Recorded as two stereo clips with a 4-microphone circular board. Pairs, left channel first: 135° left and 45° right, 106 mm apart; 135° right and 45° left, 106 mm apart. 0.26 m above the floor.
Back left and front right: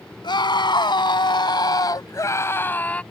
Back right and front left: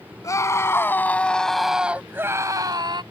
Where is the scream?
170° left; by 3.0 s 60° left.